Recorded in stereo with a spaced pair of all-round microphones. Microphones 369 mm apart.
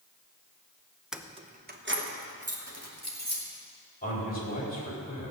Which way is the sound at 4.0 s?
25° left (ahead or behind).